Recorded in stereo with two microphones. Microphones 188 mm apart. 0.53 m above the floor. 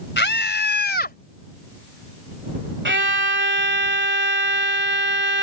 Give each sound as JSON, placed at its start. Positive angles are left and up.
{"t": 0.2, "sound": "a scream", "side_deg": 70}
{"t": 2.9, "sound": "a violin", "side_deg": -80}